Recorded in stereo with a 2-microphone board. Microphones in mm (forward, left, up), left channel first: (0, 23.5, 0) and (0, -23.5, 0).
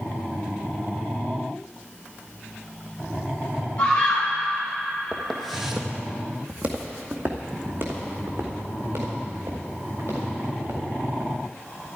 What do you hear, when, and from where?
3.8 s a scream: 30° left (ahead or behind), 4.5 m
5.1 s footsteps: 10° left (ahead or behind), 1.6 m; by 11.3 s 60° right (ahead or behind), 6 m